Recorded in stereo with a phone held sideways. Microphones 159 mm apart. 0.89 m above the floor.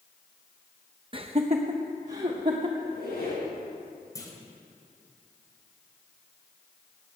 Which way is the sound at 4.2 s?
20° left (ahead or behind).